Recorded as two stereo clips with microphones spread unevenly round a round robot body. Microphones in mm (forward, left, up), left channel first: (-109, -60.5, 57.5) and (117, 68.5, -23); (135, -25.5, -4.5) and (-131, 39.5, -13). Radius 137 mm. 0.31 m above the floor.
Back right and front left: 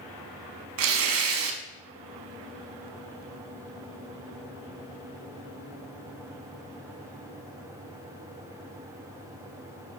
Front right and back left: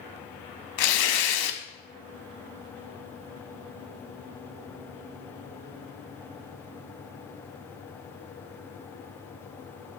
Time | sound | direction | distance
0.8 | tearing paper | 10° right | 0.5 m